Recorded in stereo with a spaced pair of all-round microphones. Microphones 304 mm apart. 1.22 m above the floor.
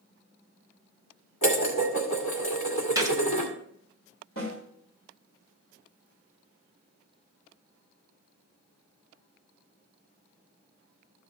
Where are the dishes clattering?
75° left (ahead or behind), 2 m.